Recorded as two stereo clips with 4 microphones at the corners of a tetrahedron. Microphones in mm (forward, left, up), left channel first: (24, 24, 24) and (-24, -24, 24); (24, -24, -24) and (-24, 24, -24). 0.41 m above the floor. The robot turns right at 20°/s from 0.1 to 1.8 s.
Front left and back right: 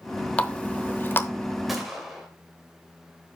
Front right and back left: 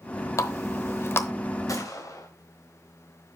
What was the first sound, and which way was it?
A running tap, 20° right.